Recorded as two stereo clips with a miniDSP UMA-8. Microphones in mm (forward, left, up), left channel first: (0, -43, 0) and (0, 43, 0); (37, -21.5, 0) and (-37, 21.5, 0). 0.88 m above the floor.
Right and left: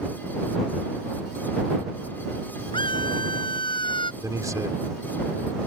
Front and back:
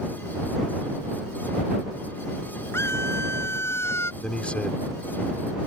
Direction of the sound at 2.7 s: 90° right.